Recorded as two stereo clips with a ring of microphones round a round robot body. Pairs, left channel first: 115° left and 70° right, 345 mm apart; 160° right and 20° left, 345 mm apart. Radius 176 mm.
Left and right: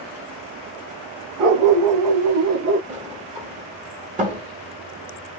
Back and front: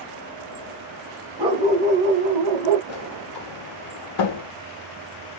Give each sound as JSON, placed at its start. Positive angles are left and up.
{"t": 1.4, "sound": "a dog barking", "azimuth_deg": -55, "distance_m": 1.0}
{"t": 2.9, "sound": "a sliding door", "azimuth_deg": -140, "distance_m": 0.7}